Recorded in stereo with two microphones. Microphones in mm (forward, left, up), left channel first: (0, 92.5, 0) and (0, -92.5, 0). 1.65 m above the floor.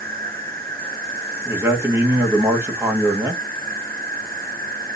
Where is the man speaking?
15° right (ahead or behind), 1.6 m.